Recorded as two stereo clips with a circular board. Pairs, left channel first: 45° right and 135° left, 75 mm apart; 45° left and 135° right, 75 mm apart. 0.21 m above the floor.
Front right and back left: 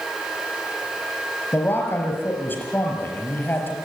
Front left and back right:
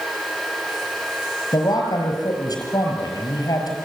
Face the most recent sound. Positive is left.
turn(degrees=20)